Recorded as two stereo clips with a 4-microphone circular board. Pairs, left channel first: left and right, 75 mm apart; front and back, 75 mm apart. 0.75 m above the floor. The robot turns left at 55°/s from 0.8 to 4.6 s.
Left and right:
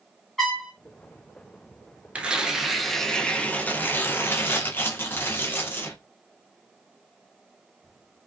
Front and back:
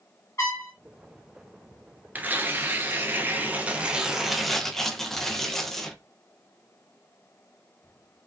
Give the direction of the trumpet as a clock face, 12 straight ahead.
12 o'clock.